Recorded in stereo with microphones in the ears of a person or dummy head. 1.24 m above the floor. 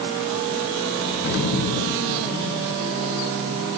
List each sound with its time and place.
1.2 s an explosion: 50° left (ahead or behind), 0.8 m